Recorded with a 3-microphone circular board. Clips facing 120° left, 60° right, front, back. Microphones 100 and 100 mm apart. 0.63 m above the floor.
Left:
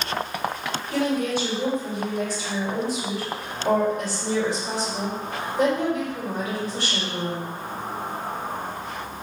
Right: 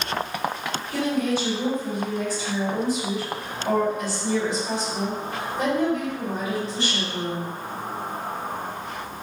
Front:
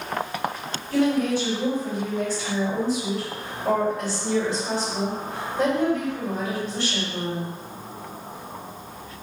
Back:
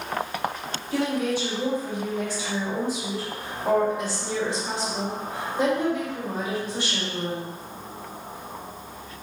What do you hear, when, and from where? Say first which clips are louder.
0.9 s a woman speaking: even, front 4 dB; 105° left, 1.9 m